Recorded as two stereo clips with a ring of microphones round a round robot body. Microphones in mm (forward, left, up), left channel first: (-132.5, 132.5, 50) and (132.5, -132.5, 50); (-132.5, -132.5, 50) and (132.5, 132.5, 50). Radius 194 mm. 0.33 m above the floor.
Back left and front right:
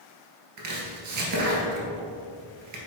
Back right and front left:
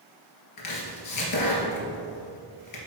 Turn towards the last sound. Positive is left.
turn(degrees=-90)